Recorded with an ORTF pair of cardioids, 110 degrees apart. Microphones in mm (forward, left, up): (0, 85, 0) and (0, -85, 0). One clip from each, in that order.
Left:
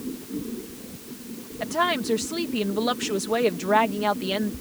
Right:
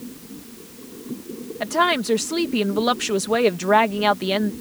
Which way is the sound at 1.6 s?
30° right.